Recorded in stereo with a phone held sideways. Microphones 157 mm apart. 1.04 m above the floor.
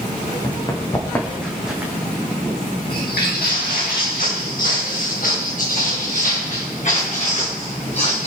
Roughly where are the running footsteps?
Left.